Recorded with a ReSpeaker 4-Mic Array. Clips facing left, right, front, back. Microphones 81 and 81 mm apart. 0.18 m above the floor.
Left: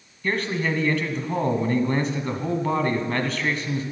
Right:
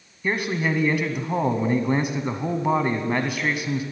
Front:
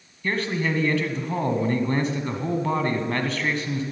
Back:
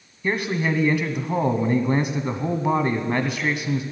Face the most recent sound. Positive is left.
turn(degrees=-135)